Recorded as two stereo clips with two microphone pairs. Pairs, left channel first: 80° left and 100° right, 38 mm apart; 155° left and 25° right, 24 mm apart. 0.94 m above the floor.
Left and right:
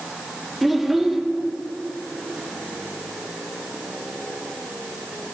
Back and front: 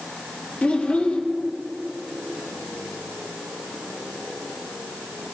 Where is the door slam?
No door slam in this recording.